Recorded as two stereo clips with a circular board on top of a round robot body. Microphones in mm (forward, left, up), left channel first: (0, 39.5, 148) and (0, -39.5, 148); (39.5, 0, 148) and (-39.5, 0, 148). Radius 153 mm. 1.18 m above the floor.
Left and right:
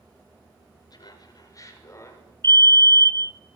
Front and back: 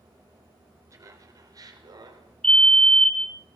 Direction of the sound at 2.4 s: 75° left.